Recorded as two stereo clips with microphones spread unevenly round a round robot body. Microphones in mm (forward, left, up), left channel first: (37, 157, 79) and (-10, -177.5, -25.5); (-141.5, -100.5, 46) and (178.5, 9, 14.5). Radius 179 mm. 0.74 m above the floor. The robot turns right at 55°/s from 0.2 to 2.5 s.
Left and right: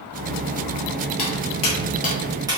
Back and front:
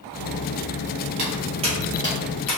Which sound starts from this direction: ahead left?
Footsteps, at 1.2 s.